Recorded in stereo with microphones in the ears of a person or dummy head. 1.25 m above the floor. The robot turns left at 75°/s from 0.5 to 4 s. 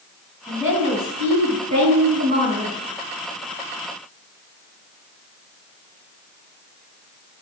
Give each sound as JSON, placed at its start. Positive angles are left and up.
{"t": 0.5, "sound": "a woman speaking", "azimuth_deg": -5, "distance_m": 6.0}